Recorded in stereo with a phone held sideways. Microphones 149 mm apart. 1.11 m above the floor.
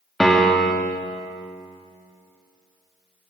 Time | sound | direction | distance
0.2 | a piano | centre (ahead or behind) | 0.7 m